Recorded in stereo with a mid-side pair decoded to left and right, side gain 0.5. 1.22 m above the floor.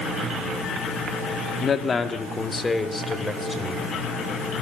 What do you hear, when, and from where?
1.6 s a man speaking: 40° left, 1.9 m; by 3.9 s 15° left, 4.5 m